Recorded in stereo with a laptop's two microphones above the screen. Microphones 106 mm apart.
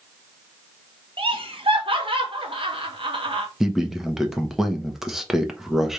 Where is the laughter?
55° right (ahead or behind), 1.2 m.